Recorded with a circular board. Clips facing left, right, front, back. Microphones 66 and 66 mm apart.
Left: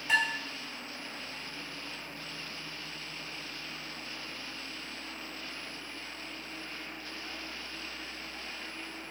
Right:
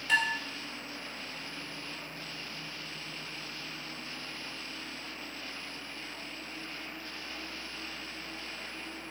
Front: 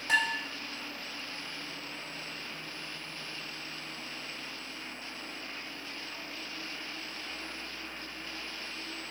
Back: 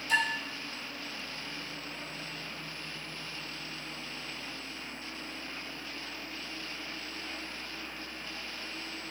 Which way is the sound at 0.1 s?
10° left.